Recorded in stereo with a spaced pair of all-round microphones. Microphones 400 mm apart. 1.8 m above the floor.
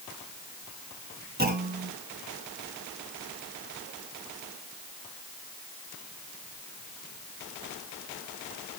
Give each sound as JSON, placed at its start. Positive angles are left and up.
{"t": 1.4, "sound": "a clunk", "side_deg": -25, "distance_m": 3.0}